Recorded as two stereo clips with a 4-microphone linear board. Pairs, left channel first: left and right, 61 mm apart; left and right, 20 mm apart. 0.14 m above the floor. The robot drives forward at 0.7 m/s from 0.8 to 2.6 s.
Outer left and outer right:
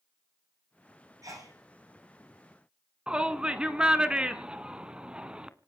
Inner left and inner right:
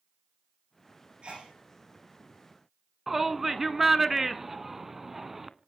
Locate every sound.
1.2 s a sneeze: 65° right (ahead or behind), 8.5 m; by 1.5 s 60° right (ahead or behind), 8.5 m
3.1 s a shout: 15° right (ahead or behind), 1.1 m